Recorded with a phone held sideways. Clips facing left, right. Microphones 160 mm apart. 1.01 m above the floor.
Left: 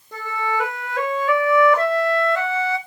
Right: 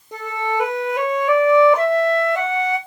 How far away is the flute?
About 1.3 m.